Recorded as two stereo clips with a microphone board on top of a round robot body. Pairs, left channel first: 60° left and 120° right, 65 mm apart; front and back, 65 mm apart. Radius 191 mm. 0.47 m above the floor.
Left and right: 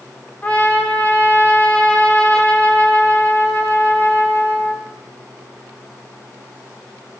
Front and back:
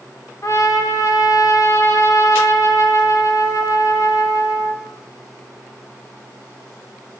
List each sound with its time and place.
0.4 s a trumpet: straight ahead, 1.7 m